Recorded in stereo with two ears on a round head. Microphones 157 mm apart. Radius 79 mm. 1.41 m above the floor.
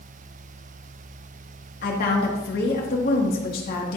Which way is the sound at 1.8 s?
55° left (ahead or behind).